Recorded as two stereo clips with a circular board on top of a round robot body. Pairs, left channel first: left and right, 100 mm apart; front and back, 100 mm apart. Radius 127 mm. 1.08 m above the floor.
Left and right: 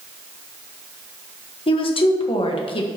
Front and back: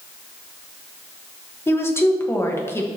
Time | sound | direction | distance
1.7 | a woman speaking | 65° left | 1.4 m